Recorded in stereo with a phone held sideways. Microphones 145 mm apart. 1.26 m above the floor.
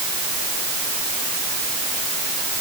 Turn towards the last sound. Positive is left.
No sound to turn to.